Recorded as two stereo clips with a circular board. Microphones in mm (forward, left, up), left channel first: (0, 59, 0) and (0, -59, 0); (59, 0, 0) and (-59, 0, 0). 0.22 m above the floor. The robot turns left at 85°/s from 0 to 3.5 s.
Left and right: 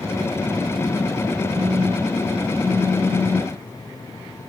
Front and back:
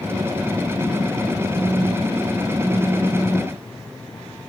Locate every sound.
1.5 s a phone buzzing: 125° right, 3.5 m; by 3.6 s 70° left, 3.5 m